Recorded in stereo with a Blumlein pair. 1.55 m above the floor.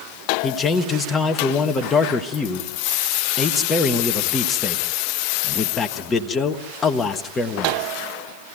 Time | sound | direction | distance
0.4 | a man speaking | 15° left | 1.5 m